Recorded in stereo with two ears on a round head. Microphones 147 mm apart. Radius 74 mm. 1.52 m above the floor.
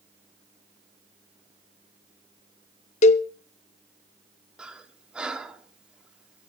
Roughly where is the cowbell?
Left.